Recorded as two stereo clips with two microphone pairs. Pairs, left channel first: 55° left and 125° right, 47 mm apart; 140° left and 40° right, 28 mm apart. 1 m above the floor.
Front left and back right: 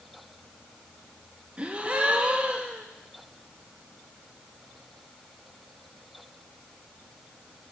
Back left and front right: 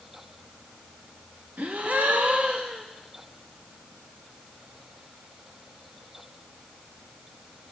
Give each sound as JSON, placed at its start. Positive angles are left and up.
{"t": 1.6, "sound": "a gasp", "azimuth_deg": -65, "distance_m": 0.6}